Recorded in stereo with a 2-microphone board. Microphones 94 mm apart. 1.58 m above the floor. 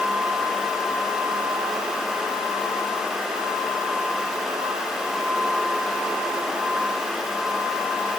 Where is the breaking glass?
No breaking glass in this recording.